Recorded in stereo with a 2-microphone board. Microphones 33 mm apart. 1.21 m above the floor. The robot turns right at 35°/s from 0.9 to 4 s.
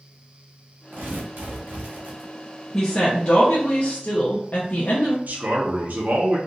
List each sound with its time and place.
0.9 s tearing paper: 95° right, 1.3 m; by 2.3 s 45° right, 1.3 m
2.7 s a woman speaking: 30° left, 0.8 m; by 5.2 s 70° left, 0.8 m
5.3 s a man speaking: 55° right (ahead or behind), 1.0 m